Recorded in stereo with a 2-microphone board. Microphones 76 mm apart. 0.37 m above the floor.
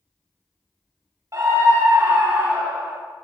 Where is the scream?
45° right (ahead or behind), 1.5 m; by 3.0 s 20° right (ahead or behind), 3 m.